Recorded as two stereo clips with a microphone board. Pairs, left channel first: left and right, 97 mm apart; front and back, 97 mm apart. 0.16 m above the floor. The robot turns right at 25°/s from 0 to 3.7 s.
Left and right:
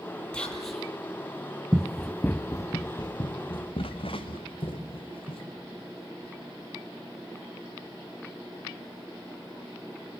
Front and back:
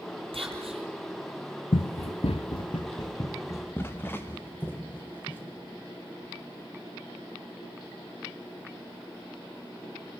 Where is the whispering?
170° left, 4.5 m; by 0.9 s straight behind, 4.5 m.